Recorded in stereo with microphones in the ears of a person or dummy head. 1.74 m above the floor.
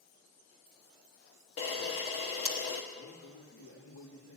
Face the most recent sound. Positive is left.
turn(degrees=60)  # may be behind; listen again after turning